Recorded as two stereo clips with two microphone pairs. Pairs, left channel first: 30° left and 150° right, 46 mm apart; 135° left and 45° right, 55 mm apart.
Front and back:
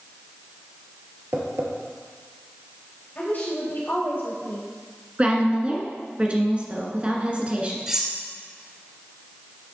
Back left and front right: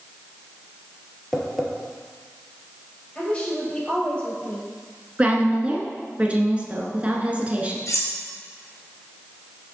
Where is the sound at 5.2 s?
100° right, 1.5 m.